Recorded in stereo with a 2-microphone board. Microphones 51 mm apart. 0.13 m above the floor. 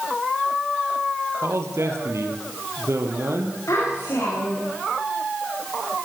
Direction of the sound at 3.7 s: 80° left.